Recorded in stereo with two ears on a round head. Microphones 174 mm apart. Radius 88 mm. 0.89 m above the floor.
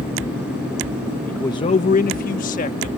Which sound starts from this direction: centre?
A man speaking, at 1.3 s.